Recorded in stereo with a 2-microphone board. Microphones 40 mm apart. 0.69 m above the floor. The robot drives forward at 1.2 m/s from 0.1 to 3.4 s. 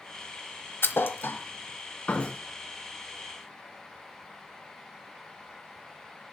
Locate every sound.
0.8 s a thud: 70° left (ahead or behind), 1.0 m; by 2.4 s 25° left (ahead or behind), 2 m